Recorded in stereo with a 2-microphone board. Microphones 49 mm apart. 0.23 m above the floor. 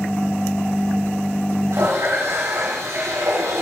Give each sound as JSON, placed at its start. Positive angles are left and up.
{"t": 1.7, "sound": "a running tap", "side_deg": -80, "distance_m": 7.0}